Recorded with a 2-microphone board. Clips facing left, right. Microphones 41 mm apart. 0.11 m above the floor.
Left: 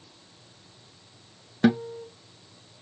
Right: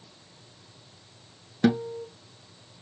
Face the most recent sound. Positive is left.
turn(degrees=10)  # may be behind; listen again after turning